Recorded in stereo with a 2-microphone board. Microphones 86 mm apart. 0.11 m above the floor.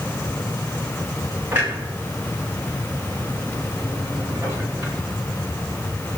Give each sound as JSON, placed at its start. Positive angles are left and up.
{"t": 1.5, "sound": "a clunk", "side_deg": -25, "distance_m": 8.5}